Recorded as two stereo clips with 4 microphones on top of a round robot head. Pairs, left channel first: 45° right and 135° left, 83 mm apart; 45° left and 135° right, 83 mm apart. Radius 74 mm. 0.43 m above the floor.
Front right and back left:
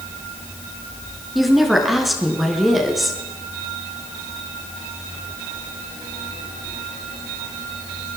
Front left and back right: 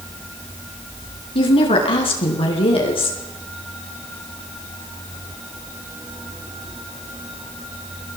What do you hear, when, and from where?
1.4 s a woman speaking: 50° left, 5.5 m